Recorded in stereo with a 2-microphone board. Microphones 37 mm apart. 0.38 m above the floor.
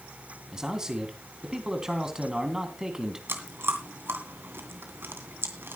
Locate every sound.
0.5 s a man speaking: 15° right (ahead or behind), 3.5 m
3.3 s chewing: 75° right (ahead or behind), 2.5 m